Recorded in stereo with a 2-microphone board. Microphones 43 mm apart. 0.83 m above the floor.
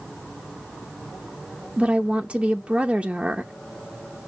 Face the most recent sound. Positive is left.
turn(degrees=-30)  # may be behind; listen again after turning